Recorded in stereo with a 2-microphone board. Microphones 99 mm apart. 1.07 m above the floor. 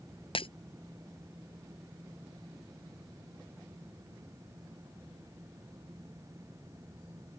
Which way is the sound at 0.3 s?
70° left (ahead or behind).